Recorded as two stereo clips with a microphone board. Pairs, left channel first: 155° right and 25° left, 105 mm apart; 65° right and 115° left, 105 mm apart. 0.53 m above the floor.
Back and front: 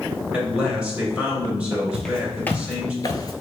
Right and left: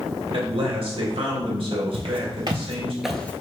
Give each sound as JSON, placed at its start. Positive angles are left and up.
{"t": 0.3, "sound": "a man speaking", "azimuth_deg": 100, "distance_m": 2.0}
{"t": 1.9, "sound": "footsteps", "azimuth_deg": 115, "distance_m": 1.0}